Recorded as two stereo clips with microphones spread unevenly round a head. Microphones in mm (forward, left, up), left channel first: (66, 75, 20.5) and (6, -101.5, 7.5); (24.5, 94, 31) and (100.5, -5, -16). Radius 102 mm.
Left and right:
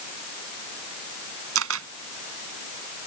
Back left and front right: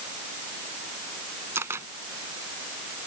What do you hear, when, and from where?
1.6 s a camera shutter: 135° right